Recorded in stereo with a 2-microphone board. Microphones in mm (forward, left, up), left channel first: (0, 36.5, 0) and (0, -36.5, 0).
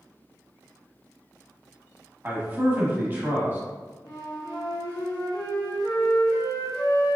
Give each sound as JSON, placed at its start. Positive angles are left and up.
{"t": 2.2, "sound": "a man speaking", "side_deg": -30, "distance_m": 1.1}
{"t": 4.0, "sound": "a flute", "side_deg": 75, "distance_m": 1.7}